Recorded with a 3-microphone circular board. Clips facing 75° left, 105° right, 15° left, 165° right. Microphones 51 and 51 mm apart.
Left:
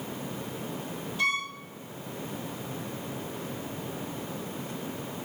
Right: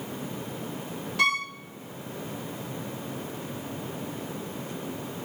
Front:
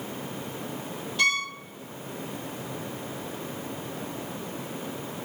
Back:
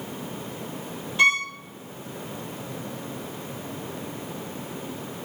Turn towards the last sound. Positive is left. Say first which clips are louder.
# right 4 dB, back 5 dB
turn(degrees=-105)